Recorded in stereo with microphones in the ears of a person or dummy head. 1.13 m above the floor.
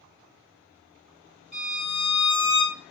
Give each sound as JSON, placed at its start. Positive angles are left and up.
{"t": 1.5, "sound": "a violin", "side_deg": -5, "distance_m": 1.2}